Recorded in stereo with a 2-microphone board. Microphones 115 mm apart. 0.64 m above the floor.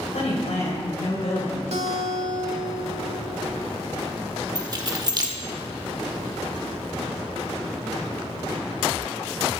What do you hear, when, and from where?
0.1 s a woman speaking: 75° left (ahead or behind), 3.5 m
1.7 s a guitar: 70° right (ahead or behind), 0.9 m
4.5 s keys jangling: 35° right (ahead or behind), 1.1 m